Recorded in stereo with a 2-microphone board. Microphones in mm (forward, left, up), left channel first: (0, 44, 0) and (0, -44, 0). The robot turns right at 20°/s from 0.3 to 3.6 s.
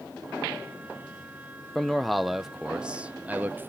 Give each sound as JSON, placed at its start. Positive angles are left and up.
{"t": 1.8, "sound": "a man speaking", "azimuth_deg": 170, "distance_m": 0.6}